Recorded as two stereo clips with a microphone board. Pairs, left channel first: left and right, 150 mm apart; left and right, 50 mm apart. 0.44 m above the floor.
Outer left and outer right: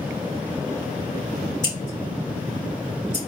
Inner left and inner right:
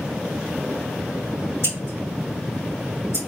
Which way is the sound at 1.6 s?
60° left (ahead or behind).